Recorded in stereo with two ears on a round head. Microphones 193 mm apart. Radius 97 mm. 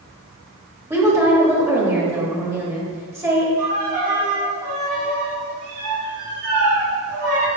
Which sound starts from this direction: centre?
A woman speaking, at 0.9 s.